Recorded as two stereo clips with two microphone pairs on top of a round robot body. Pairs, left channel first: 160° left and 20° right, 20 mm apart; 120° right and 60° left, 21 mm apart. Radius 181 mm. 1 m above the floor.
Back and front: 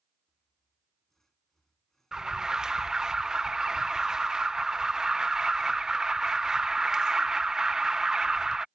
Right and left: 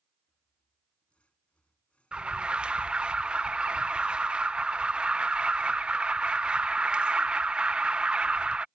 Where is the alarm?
45° left.